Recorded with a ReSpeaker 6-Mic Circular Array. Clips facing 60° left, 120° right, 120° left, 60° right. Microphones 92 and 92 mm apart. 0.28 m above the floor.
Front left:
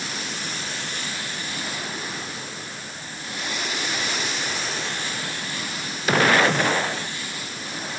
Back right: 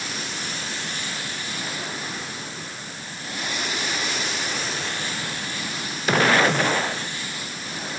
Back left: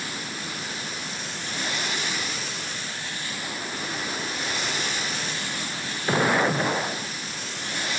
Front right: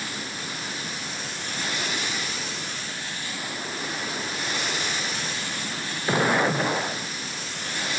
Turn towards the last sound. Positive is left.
No sound to turn to.